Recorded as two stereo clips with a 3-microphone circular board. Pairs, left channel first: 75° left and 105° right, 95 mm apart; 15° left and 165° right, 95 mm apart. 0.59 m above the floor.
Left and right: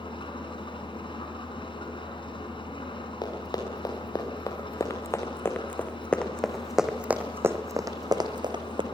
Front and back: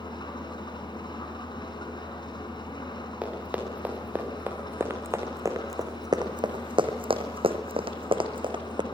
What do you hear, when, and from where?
0.0 s an engine running: 50° left, 4.5 m
3.2 s running footsteps: 120° left, 5 m; by 8.8 s 130° right, 2.5 m